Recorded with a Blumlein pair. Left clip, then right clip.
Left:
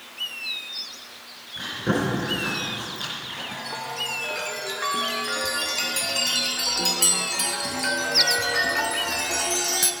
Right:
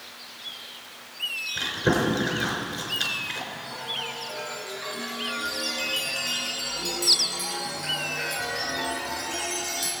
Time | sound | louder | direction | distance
1.6 | chewing | right 1 dB | 70° right | 4.5 m
3.5 | a chime | left 1 dB | 65° left | 1.2 m